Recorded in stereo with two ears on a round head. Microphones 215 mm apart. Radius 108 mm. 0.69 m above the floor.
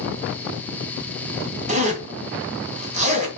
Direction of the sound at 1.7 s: 30° right (ahead or behind).